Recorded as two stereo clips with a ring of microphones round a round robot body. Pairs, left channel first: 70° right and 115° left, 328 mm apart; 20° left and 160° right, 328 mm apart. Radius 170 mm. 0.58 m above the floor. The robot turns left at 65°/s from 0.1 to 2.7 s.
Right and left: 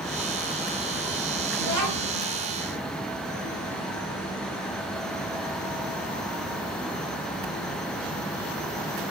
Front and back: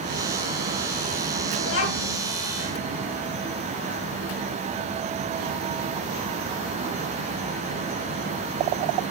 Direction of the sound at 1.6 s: 85° left.